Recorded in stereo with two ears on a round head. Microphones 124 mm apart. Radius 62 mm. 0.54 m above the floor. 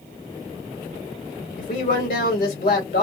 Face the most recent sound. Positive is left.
turn(degrees=65)  # may be behind; listen again after turning